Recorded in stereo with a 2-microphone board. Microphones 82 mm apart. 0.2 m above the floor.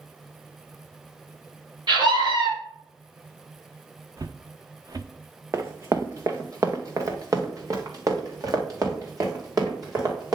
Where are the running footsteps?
35° right (ahead or behind), 0.9 m; by 10.4 s 45° right (ahead or behind), 3.5 m.